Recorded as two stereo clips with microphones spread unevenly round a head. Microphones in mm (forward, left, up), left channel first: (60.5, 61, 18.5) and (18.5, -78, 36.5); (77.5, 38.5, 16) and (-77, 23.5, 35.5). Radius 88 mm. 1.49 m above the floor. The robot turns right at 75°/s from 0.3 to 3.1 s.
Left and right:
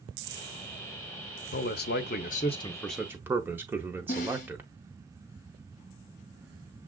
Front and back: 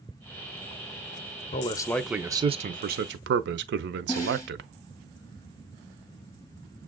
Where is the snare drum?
80° left, 1.0 m.